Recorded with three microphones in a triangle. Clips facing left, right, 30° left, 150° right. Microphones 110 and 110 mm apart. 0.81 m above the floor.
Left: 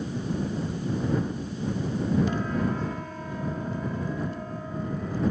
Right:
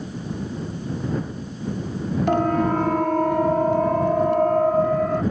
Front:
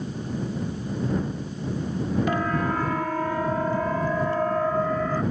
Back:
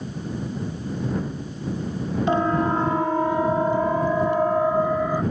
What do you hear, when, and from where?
2.3 s a siren: 90° right; by 5.2 s 75° right